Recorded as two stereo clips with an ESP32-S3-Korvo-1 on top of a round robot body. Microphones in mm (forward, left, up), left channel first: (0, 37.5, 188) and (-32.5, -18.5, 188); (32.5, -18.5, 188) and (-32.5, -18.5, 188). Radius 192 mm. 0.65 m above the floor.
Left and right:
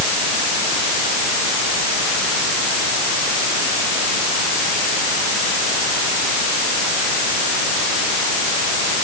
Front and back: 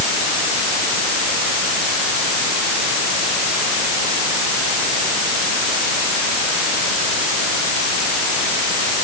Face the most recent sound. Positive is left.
No sound to turn to.